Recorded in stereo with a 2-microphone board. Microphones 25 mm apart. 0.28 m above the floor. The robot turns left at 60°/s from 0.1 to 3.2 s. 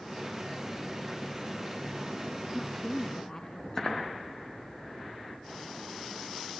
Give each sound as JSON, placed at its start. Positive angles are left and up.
{"t": 2.5, "sound": "a woman speaking", "azimuth_deg": -175, "distance_m": 2.5}